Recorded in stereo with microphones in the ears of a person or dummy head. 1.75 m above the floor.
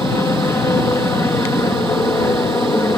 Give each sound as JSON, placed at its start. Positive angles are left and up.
{"t": 0.0, "sound": "an aircraft", "side_deg": 15}